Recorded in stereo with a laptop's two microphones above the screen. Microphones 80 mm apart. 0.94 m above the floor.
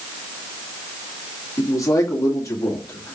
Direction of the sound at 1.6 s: 40° left (ahead or behind).